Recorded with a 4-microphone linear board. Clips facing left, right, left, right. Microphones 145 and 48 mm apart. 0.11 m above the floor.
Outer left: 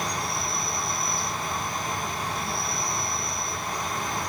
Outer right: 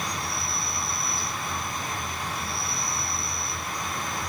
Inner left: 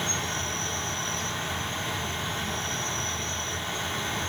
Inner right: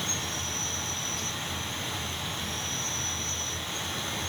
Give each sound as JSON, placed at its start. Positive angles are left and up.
{"t": 0.0, "sound": "an insect", "side_deg": 35, "distance_m": 1.8}